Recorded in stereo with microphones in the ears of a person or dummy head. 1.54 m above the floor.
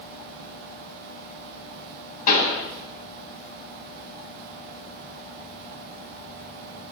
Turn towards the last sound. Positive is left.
turn(degrees=50)  # may be behind; listen again after turning